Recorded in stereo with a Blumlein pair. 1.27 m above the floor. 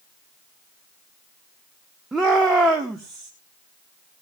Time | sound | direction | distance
2.1 | a shout | 10° right | 1.1 m